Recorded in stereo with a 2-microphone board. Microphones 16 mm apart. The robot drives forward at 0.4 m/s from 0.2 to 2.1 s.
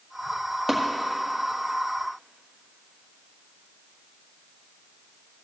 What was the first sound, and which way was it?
Tapping, 5° right (ahead or behind).